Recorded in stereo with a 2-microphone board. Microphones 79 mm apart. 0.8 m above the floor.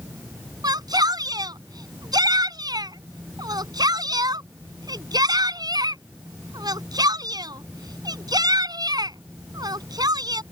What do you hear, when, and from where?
0.6 s a shout: 60° right (ahead or behind)